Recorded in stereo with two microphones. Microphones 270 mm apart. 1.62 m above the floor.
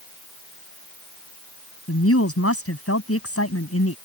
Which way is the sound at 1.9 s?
65° left (ahead or behind).